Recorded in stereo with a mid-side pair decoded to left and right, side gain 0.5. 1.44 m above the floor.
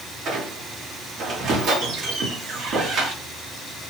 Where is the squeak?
60° right, 1.1 m.